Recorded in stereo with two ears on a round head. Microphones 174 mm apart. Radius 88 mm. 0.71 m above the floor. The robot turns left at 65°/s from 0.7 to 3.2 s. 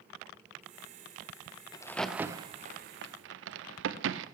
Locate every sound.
1.7 s a crack: 20° left (ahead or behind), 0.7 m; by 4.2 s 65° right (ahead or behind), 0.7 m